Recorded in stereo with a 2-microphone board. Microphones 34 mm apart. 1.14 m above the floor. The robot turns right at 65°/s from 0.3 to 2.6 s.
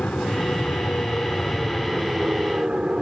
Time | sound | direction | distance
0.0 | an aircraft | 60° left | ?